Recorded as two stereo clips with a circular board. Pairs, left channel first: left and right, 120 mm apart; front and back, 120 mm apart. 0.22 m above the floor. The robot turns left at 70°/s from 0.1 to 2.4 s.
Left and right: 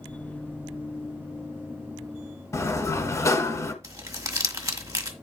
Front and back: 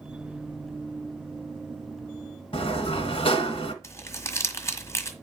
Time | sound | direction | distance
2.5 | a sliding door | 30° left | 1.4 m
3.8 | crumpling | 50° right | 1.4 m